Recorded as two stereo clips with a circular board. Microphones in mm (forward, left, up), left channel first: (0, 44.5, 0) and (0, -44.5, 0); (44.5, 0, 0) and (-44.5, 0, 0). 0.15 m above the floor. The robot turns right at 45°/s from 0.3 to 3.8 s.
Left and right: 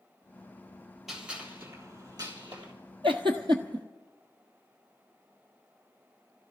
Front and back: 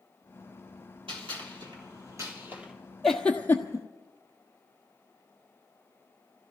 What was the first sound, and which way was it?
A gunshot, 175° right.